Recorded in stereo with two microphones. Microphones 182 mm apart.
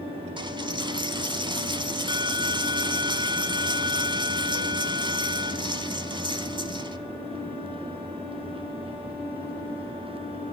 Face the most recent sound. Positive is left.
turn(degrees=-25)  # may be behind; listen again after turning